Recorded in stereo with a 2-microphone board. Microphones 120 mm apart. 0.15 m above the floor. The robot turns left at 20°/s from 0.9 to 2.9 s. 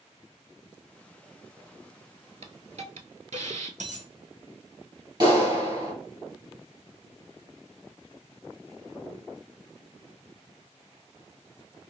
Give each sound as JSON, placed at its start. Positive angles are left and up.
{"t": 2.4, "sound": "a hiss", "side_deg": -65, "distance_m": 0.5}
{"t": 3.8, "sound": "a dropped coin", "side_deg": -85, "distance_m": 1.8}
{"t": 5.2, "sound": "a clap", "side_deg": -35, "distance_m": 2.0}